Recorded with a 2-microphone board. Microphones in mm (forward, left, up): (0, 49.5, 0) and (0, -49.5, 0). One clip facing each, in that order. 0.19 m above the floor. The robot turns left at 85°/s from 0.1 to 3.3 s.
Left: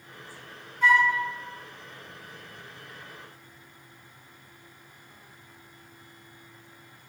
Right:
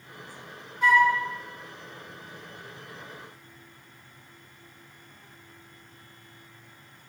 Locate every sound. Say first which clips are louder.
0.8 s a flute: right 1 dB; 15° right (ahead or behind), 1.6 m; by 1.1 s 30° right (ahead or behind), 1.6 m